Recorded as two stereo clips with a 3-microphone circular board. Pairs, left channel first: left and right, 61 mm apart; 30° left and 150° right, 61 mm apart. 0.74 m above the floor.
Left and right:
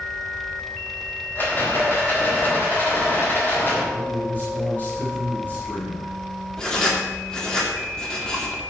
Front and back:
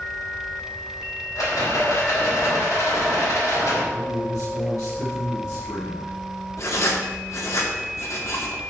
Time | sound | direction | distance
1.4 | a rattle | 35° left | 4 m
3.9 | a man speaking | 35° left | 5 m
6.6 | writing | 15° left | 2 m